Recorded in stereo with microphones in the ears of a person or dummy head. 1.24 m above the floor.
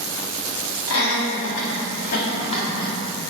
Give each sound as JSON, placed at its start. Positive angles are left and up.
{"t": 0.9, "sound": "laughter", "side_deg": 80, "distance_m": 2.0}